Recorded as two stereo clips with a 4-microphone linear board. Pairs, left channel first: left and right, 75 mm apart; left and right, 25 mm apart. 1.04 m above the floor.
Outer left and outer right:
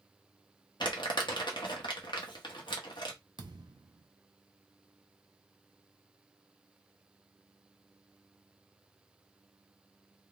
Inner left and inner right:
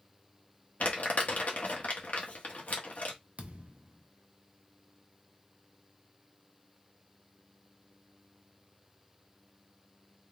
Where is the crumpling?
85° left, 1.2 m.